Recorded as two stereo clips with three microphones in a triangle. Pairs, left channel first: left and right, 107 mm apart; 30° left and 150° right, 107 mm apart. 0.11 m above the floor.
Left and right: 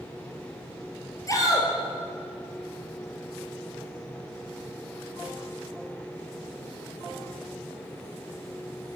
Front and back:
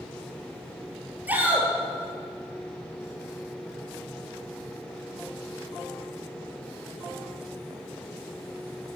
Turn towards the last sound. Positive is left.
turn(degrees=140)